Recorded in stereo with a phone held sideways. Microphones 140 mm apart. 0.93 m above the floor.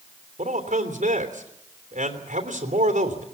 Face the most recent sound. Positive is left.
turn(degrees=-60)  # may be behind; listen again after turning